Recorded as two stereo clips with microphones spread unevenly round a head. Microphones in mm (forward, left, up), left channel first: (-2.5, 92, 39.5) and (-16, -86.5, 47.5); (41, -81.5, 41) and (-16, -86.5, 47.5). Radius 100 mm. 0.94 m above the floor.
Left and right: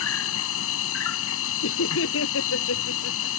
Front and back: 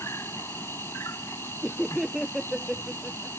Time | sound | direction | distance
0.0 | an insect | 80° left | ?
1.6 | laughter | 95° left | ?